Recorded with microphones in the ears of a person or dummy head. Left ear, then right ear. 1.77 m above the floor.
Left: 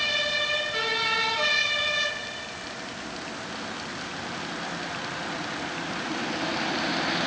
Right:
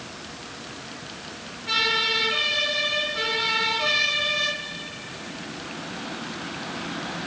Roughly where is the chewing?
No chewing in this recording.